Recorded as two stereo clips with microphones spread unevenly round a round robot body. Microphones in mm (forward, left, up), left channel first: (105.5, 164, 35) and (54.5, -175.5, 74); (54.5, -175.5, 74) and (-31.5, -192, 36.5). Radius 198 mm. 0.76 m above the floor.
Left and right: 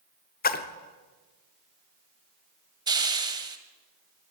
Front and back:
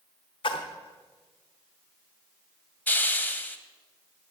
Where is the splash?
15° left, 0.7 m.